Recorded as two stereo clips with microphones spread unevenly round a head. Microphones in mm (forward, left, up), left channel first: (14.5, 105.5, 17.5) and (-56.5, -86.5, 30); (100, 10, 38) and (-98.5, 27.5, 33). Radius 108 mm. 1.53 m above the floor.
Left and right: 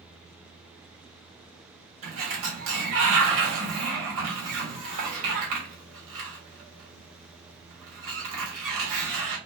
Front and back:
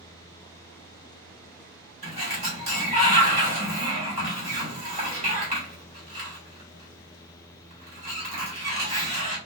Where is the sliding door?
125° right, 2.5 m.